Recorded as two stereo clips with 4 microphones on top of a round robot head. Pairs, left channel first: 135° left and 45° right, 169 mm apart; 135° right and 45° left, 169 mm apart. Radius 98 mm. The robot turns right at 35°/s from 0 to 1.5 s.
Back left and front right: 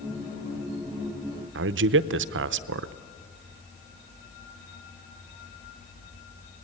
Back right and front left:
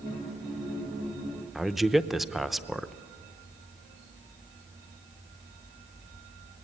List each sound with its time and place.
1.6 s a man speaking: 45° right, 0.7 m